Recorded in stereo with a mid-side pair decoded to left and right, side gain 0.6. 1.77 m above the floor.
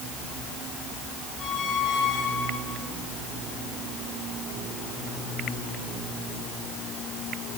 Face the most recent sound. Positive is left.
turn(degrees=55)